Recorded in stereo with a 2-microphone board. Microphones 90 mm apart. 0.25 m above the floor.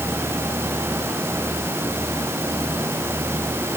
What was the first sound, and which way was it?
Only background noise.